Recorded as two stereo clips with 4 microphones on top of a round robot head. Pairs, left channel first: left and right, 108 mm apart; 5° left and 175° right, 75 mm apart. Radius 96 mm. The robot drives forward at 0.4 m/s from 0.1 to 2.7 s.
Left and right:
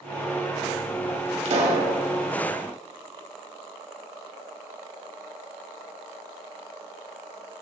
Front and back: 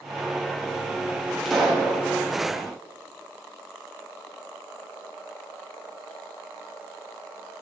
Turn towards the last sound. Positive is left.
turn(degrees=-95)